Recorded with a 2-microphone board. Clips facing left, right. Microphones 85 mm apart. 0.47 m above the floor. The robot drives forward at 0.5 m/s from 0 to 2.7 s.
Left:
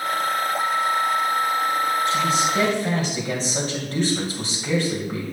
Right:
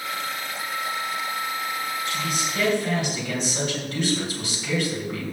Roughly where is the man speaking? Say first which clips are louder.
Left 7 dB; left.